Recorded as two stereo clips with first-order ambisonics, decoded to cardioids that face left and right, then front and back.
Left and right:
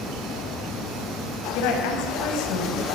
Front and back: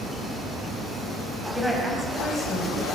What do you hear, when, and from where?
1.6 s a woman speaking: 95° left, 5.5 m